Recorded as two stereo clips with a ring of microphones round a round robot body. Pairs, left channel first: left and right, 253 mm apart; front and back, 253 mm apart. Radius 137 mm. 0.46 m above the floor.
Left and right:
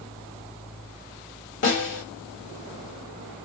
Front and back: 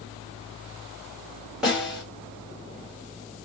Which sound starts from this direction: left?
A snare drum, at 1.6 s.